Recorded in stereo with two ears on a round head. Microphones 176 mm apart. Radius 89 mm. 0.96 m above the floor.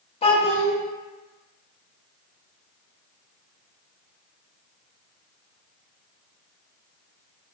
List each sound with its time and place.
0.2 s a child speaking: 30° left (ahead or behind), 0.7 m